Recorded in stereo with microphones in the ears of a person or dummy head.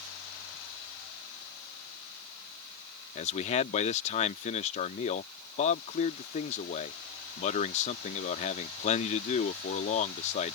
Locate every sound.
3.1 s a man speaking: 35° left (ahead or behind)